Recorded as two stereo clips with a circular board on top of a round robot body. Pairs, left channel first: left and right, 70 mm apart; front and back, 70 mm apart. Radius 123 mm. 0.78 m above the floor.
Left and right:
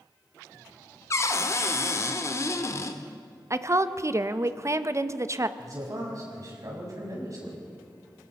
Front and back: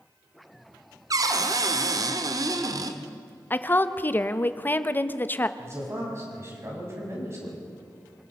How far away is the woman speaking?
About 1.1 m.